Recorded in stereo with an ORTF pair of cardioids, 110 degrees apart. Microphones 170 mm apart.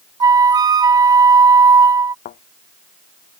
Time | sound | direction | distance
0.2 | a flute | 25° right | ?
2.2 | a thud | 65° left | ?